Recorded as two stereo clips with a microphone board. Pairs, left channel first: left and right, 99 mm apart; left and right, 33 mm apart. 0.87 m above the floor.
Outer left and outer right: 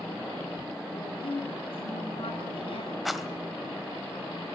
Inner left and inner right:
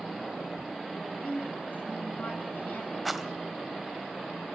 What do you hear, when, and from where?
0.9 s a woman speaking: 65° left (ahead or behind), 5.5 m
3.0 s a rattle: centre (ahead or behind), 1.6 m